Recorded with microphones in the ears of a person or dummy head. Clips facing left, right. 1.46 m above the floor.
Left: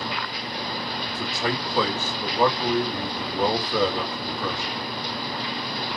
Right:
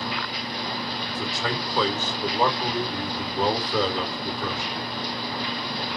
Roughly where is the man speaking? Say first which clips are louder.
Left 3 dB; centre.